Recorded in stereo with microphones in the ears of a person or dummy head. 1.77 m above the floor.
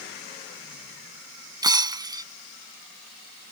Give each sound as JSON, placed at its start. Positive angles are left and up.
{"t": 1.6, "sound": "breaking glass", "side_deg": -15}